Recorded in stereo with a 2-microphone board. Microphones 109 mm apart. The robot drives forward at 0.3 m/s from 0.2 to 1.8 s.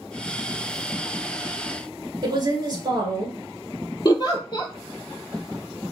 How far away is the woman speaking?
About 1.3 m.